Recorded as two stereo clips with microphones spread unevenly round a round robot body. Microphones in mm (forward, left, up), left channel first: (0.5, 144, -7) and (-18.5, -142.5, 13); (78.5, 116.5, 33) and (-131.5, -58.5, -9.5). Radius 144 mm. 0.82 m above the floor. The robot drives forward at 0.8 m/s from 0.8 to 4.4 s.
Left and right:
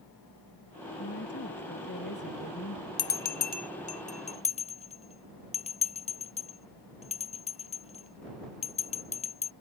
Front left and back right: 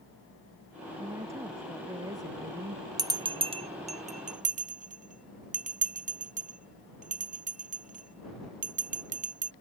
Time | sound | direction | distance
1.0 | a woman speaking | 140° left | ?
3.0 | a bell | 140° left | ?